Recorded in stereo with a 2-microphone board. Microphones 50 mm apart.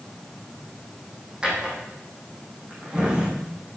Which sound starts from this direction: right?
A drawer, at 1.4 s.